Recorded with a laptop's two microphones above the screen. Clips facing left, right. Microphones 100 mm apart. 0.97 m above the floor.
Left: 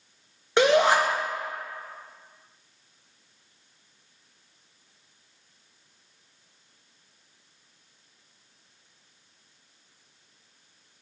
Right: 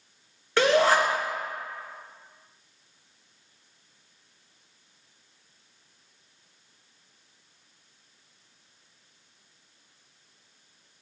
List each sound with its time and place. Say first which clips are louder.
0.6 s a shout: left 1 dB; 20° left (ahead or behind), 1.2 m